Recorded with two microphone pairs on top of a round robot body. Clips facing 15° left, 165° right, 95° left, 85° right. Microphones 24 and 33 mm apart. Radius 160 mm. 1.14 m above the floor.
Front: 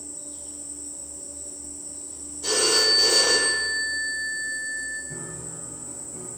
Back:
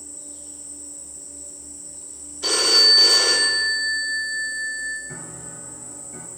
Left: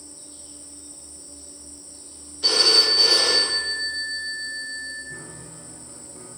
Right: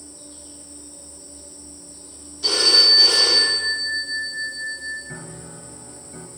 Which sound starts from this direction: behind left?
A phone ringing, at 2.4 s.